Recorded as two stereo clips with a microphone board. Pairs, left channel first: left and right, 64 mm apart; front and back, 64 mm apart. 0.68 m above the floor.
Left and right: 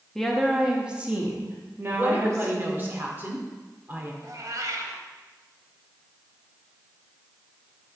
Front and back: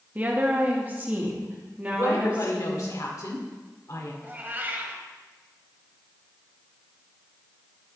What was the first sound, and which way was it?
A woman speaking, 165° left.